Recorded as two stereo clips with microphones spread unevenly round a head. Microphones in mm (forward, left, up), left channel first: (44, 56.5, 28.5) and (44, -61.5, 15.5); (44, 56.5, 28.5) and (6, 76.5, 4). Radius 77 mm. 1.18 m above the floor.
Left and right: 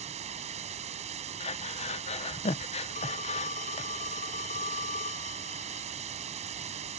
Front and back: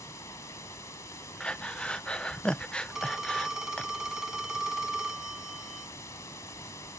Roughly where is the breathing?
Ahead left.